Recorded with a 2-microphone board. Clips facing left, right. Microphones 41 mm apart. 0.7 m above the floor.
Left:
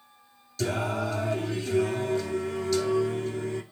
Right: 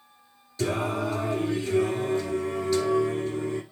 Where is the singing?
15° right (ahead or behind), 8 m.